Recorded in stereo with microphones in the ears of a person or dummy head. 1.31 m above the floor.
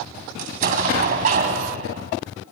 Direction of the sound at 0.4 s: 45° right (ahead or behind).